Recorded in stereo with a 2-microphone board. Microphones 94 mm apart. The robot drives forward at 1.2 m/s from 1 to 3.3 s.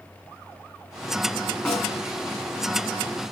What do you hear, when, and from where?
1.6 s a snare drum: 5° left (ahead or behind), 3.5 m